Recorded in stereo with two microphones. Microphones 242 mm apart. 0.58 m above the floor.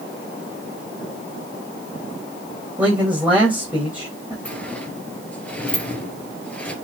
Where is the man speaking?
5° right (ahead or behind), 3.5 m.